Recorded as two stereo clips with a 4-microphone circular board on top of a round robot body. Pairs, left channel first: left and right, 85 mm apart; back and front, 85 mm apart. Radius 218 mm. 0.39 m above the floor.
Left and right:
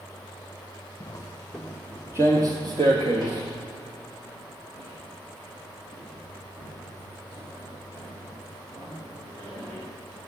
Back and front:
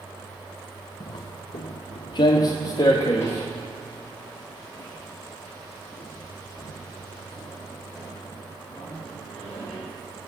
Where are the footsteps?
140° left, 0.8 m; by 9.8 s 100° right, 6 m.